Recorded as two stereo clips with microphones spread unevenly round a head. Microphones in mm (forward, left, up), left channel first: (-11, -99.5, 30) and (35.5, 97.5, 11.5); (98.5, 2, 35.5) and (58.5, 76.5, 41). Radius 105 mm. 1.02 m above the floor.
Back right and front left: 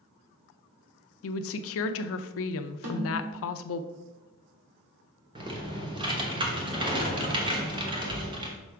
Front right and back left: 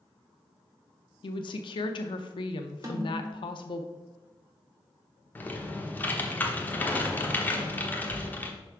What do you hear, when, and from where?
1.2 s a woman speaking: 85° right, 0.5 m
2.8 s a snare drum: 65° left, 1.8 m
5.3 s typing on a keyboard: 10° left, 1.2 m